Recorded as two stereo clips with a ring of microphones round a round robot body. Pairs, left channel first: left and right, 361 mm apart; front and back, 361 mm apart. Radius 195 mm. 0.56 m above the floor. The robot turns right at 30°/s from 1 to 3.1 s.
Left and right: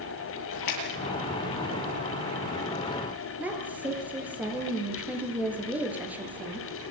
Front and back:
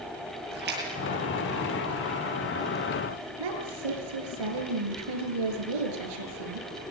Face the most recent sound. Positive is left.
turn(degrees=-175)